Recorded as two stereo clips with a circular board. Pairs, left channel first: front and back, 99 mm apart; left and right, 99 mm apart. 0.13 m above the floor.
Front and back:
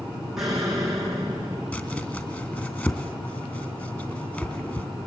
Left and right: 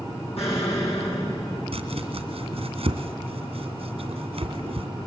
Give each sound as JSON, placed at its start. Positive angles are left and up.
{"t": 0.4, "sound": "an explosion", "azimuth_deg": 95, "distance_m": 9.5}
{"t": 1.7, "sound": "chopping", "azimuth_deg": -75, "distance_m": 2.0}